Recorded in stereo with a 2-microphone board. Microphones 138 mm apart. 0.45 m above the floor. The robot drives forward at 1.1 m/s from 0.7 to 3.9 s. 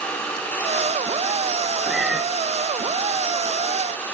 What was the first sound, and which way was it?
A cat meowing, centre (ahead or behind).